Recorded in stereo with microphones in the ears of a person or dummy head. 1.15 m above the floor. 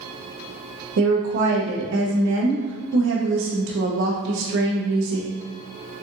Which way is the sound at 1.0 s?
60° right (ahead or behind).